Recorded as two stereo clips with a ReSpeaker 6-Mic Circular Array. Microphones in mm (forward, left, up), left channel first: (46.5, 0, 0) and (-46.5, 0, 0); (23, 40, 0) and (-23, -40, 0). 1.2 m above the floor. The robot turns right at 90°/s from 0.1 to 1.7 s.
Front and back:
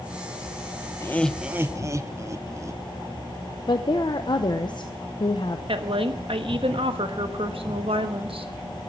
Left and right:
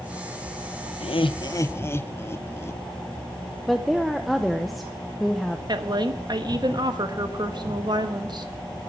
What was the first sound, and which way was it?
Laughter, 60° left.